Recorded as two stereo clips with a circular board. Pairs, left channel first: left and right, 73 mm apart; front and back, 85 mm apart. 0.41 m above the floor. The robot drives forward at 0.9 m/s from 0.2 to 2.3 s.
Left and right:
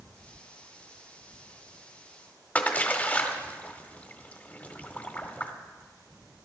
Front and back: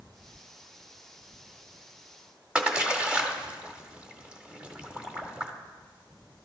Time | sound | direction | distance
2.5 | a splash | 120° left | 1.3 m